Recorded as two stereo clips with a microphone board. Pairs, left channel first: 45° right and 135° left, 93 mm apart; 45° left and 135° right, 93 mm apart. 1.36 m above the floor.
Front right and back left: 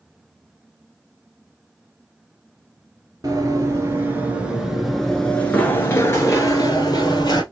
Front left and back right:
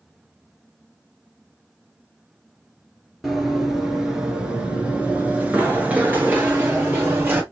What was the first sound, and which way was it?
Running footsteps, 140° left.